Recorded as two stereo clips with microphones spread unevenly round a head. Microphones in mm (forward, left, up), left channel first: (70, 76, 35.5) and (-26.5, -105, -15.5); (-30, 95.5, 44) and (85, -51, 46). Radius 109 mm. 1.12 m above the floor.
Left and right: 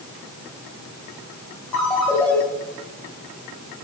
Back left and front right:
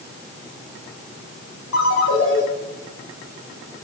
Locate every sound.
1.7 s a ringtone: 145° left, 3.5 m